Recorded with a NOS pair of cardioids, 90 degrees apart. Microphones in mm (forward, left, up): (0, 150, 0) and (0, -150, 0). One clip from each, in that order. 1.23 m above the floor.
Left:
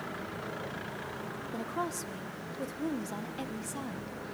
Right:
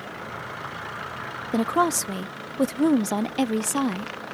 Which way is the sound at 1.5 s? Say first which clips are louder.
Right 14 dB; 70° right.